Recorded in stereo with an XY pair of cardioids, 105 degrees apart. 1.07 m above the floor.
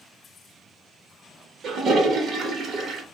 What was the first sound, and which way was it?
A toilet flushing, 60° right.